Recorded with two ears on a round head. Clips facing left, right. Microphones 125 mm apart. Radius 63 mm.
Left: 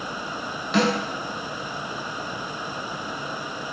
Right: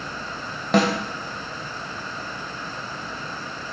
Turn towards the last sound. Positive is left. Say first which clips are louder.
# right 2 dB
turn(degrees=-45)  # may be behind; listen again after turning